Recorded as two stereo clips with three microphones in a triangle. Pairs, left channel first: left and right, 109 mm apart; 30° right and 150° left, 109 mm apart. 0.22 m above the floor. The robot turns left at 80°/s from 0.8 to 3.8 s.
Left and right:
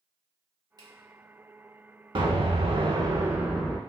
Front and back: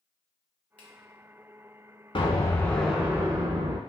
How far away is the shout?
I don't hear a shout.